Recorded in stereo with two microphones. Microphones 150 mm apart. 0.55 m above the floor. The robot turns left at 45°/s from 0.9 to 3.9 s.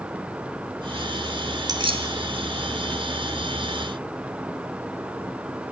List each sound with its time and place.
1.7 s keys jangling: 25° right (ahead or behind), 1.4 m; by 2.1 s 45° right (ahead or behind), 1.4 m